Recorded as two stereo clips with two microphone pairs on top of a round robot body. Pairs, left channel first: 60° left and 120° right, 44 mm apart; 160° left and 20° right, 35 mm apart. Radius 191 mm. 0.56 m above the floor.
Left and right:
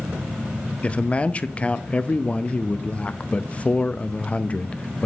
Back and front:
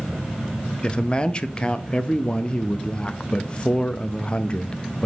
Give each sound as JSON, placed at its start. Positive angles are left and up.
{"t": 0.8, "sound": "a man speaking", "azimuth_deg": 90, "distance_m": 0.8}